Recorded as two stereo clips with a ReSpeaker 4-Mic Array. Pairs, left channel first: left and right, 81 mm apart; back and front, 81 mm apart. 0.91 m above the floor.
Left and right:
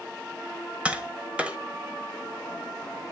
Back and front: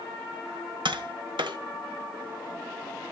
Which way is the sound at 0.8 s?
15° right.